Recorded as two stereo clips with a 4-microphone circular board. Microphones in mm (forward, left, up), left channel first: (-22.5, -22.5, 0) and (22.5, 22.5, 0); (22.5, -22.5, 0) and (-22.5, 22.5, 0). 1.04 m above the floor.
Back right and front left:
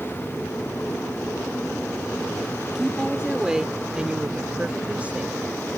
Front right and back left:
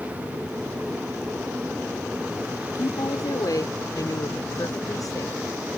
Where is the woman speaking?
45° right; by 5.4 s 20° right.